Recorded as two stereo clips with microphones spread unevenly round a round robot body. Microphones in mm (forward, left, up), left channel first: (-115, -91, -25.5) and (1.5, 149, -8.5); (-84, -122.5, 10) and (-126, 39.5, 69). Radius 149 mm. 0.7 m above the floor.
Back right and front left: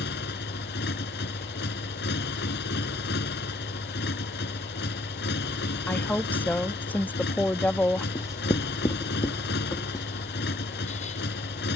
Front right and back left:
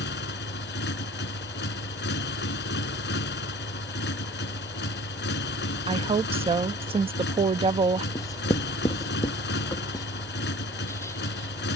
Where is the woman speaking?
170° left.